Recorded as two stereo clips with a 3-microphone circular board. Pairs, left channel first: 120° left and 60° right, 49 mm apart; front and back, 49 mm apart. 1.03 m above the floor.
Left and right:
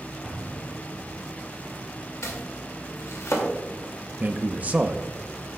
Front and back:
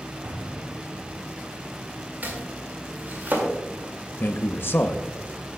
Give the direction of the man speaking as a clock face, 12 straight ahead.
12 o'clock.